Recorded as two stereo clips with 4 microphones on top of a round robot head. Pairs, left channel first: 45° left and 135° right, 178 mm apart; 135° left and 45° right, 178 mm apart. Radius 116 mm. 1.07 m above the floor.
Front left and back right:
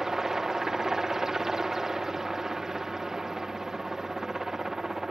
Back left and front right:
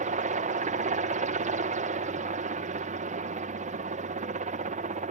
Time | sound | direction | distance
0.0 | a helicopter | 45° right | ?